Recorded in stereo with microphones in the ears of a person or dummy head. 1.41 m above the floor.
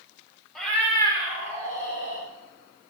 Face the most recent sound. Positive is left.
turn(degrees=45)  # may be behind; listen again after turning